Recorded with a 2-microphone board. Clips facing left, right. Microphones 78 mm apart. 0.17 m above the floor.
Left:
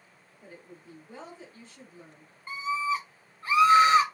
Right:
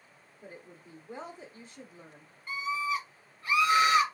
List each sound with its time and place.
0.4 s a woman speaking: 15° right (ahead or behind), 1.0 m
2.5 s a scream: 30° left (ahead or behind), 1.4 m